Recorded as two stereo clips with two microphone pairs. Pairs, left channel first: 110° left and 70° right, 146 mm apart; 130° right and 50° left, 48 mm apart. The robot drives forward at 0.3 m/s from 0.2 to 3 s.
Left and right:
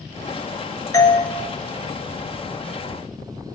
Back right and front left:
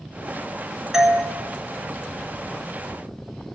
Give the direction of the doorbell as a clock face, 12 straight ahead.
8 o'clock.